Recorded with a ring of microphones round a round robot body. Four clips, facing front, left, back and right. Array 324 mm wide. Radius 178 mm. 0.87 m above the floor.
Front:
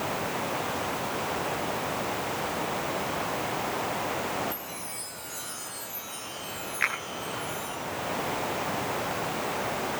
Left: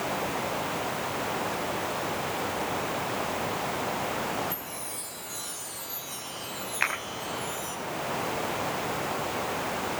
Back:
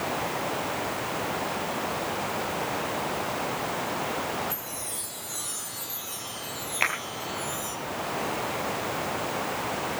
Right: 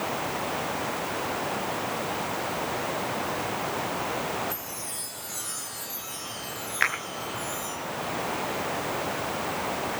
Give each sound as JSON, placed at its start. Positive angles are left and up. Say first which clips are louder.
{"t": 4.5, "sound": "a chime", "louder": "even, back 1 dB", "azimuth_deg": -155, "distance_m": 8.0}
{"t": 6.8, "sound": "a finger snap", "louder": "right 3 dB, back 2 dB", "azimuth_deg": -155, "distance_m": 5.0}